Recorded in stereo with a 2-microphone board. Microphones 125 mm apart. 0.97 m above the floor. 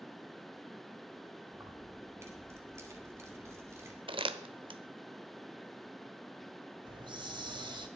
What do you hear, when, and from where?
1.5 s keys jangling: 20° right (ahead or behind), 2 m
4.1 s crumpling: 45° right (ahead or behind), 0.9 m
6.8 s a hiss: 40° right (ahead or behind), 1.5 m